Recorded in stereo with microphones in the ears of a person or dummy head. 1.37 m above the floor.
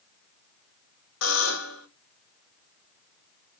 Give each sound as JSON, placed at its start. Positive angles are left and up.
{"t": 1.2, "sound": "a buzzer", "side_deg": 75, "distance_m": 1.8}